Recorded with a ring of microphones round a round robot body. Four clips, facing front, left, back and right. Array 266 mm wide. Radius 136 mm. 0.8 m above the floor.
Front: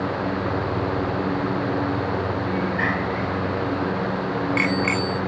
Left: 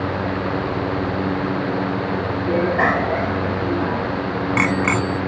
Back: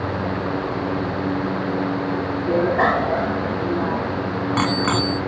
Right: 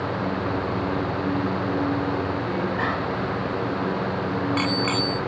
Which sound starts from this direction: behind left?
A bicycle bell, at 2.5 s.